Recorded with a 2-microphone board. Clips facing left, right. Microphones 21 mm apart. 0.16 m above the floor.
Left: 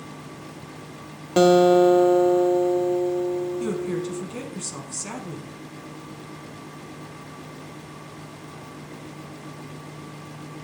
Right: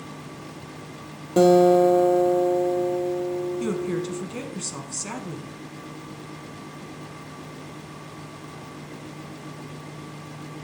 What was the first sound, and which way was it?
A guitar, 40° left (ahead or behind).